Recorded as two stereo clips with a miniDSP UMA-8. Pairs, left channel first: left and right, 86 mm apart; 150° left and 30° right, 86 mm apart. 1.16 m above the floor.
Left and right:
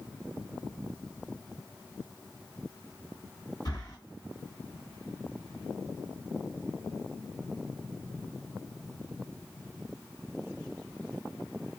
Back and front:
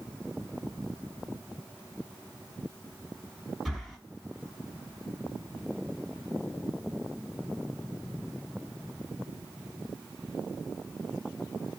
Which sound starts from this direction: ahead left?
Breathing, at 3.6 s.